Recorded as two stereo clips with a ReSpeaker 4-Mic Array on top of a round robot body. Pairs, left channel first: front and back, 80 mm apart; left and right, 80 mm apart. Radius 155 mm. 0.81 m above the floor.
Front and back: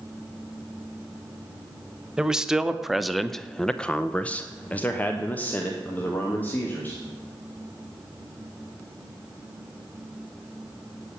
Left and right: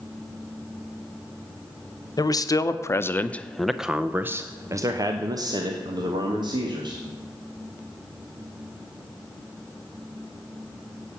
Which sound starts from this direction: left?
A man speaking, at 2.2 s.